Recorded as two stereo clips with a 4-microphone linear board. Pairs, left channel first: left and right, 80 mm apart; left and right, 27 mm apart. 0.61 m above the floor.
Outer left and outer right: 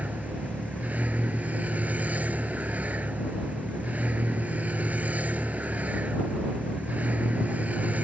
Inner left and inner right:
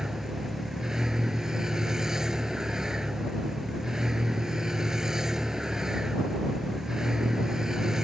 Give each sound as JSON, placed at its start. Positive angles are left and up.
{"t": 0.0, "sound": "a vehicle", "side_deg": -20}